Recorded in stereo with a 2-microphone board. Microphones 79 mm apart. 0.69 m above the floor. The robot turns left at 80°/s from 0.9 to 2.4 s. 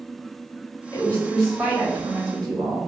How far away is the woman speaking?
About 1.0 m.